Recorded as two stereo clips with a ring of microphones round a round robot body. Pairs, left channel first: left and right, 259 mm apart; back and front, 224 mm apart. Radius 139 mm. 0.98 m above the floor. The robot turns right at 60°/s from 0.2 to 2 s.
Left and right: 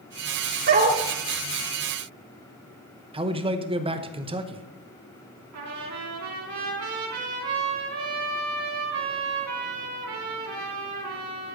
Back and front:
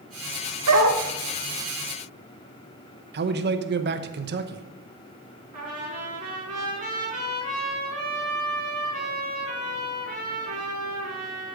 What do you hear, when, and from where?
0.7 s a dog barking: 40° right, 1.0 m; by 1.0 s 15° right, 1.0 m
3.1 s a man speaking: 25° right, 0.9 m
5.5 s a trumpet: 60° right, 4.5 m